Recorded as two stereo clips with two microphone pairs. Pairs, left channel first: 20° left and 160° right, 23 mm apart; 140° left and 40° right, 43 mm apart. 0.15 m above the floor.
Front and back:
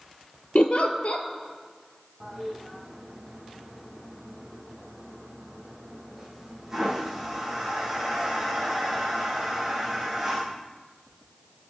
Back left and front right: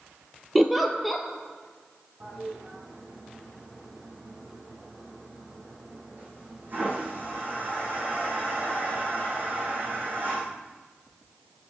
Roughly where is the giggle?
Ahead left.